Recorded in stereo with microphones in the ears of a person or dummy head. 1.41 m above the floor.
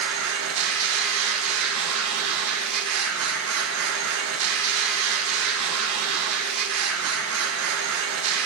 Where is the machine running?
85° right, 1.7 m.